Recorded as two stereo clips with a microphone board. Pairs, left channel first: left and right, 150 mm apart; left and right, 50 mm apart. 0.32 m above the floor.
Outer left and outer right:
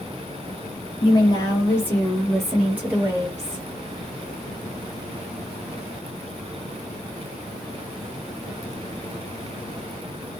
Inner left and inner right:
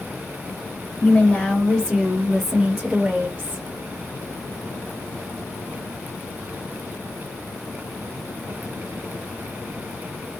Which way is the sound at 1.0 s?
30° left (ahead or behind).